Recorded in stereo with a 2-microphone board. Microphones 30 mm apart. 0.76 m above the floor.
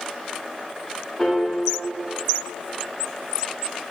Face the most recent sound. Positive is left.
turn(degrees=10)  # may be behind; listen again after turning